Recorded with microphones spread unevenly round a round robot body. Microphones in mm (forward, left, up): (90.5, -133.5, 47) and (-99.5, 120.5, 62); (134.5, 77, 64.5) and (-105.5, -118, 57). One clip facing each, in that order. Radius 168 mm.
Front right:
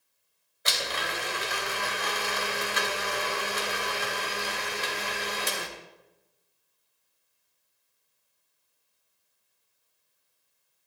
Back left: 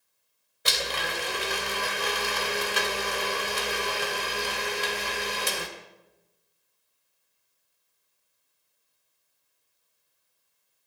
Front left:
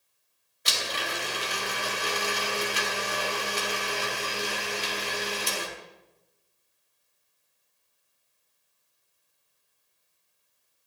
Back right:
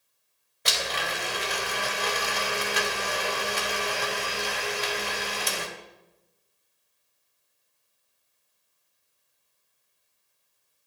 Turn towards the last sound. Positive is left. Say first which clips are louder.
# back left 2 dB, back right 2 dB
turn(degrees=180)